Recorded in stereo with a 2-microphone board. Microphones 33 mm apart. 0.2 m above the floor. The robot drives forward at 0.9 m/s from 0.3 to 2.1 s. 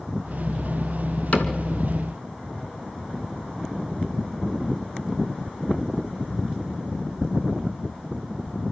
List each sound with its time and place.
1.3 s a cupboard door: 40° left (ahead or behind), 1.9 m; by 1.6 s 45° left (ahead or behind), 1.8 m